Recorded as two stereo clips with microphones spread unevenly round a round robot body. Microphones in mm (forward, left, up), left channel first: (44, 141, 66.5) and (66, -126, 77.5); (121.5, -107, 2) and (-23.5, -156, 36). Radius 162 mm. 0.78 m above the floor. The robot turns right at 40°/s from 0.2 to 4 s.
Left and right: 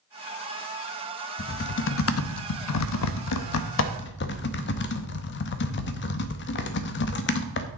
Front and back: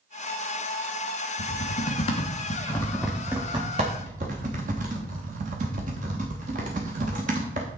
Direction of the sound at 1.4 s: 35° left.